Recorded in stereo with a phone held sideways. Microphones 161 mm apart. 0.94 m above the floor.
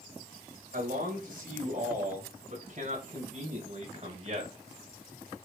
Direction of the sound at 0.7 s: 60° right (ahead or behind).